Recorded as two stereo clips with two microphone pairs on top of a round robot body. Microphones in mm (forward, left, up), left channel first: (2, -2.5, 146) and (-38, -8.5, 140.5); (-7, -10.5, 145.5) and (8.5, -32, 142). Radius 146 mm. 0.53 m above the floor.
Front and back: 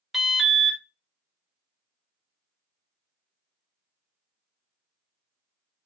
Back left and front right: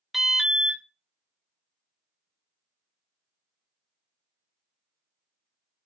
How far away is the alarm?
About 1.2 m.